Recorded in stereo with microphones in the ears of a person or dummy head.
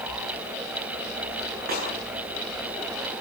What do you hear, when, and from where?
1.7 s a snare drum: 55° right (ahead or behind), 9.5 m